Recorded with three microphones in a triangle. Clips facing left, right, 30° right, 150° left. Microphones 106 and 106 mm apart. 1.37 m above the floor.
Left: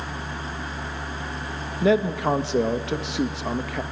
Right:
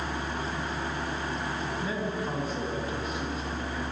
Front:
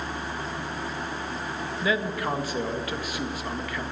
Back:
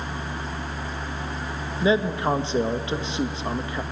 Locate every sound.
1.8 s a man speaking: 85° left, 1.5 m